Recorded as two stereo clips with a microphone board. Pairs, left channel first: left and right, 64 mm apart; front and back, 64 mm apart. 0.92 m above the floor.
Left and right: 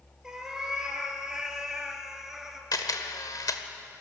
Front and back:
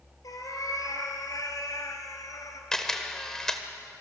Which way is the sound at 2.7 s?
85° left.